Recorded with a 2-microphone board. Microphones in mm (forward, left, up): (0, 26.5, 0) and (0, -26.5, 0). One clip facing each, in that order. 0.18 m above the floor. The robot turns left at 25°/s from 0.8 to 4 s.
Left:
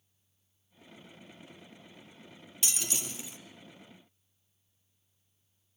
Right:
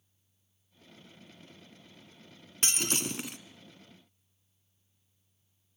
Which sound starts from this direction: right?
Breaking glass, at 2.6 s.